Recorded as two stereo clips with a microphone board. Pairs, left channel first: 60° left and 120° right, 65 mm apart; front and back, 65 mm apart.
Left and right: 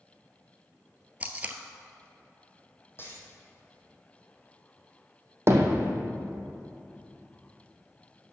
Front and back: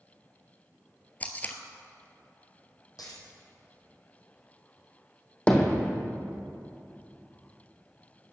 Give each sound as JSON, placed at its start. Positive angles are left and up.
{"t": 1.2, "sound": "tape being pulled", "azimuth_deg": -60, "distance_m": 0.7}
{"t": 3.0, "sound": "a dropped coin", "azimuth_deg": 5, "distance_m": 1.9}
{"t": 5.5, "sound": "hammering", "azimuth_deg": -70, "distance_m": 1.1}